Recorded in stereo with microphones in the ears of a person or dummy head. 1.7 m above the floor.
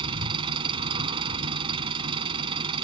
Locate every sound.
0.0 s an engine running: 30° right (ahead or behind)